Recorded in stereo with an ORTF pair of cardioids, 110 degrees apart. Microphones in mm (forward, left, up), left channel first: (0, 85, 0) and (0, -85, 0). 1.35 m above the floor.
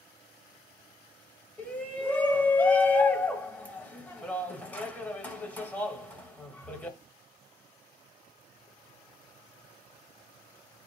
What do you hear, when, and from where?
1.6 s a shout: 10° left, 1.4 m